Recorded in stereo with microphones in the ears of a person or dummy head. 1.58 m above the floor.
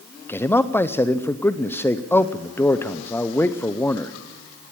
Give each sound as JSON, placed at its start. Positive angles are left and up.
{"t": 0.3, "sound": "a man speaking", "side_deg": 10, "distance_m": 0.6}